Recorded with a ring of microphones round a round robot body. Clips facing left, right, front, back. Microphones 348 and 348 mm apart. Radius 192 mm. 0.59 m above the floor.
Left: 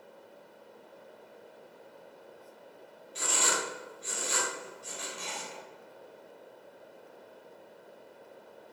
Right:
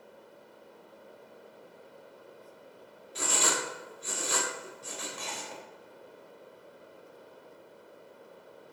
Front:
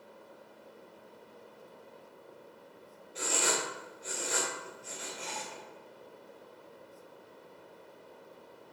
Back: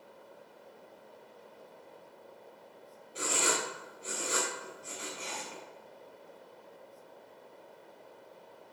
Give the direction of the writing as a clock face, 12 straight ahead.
3 o'clock.